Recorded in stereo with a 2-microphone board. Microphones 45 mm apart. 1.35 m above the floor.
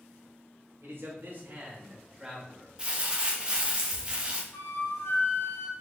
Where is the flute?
65° left (ahead or behind), 0.7 m.